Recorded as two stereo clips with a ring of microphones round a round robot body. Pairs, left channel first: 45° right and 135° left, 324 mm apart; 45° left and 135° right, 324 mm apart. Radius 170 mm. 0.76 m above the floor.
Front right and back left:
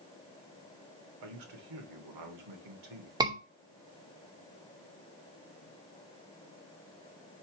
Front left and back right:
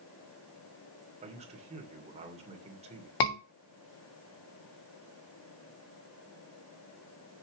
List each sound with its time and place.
1.2 s a man speaking: 155° left, 2.5 m
3.2 s a scream: 60° left, 3 m